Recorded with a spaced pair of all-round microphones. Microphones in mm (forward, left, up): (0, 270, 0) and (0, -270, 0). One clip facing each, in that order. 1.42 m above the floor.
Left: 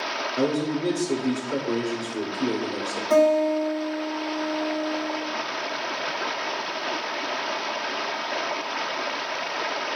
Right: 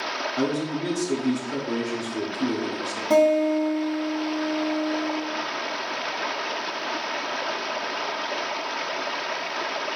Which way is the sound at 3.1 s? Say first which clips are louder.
Right 1 dB; 50° right (ahead or behind).